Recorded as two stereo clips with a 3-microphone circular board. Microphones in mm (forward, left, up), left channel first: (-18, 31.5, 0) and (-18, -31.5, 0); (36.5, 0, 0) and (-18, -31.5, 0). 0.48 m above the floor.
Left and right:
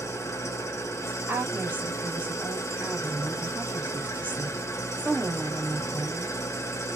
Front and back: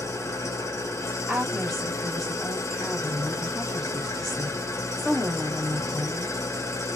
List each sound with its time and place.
0.0 s an engine running: 60° left, 0.7 m
1.3 s a woman speaking: 60° right, 1.3 m